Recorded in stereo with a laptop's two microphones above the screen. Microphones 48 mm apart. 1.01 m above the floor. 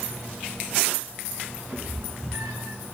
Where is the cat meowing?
45° right (ahead or behind), 3 m; by 2.8 s 60° right (ahead or behind), 3.5 m.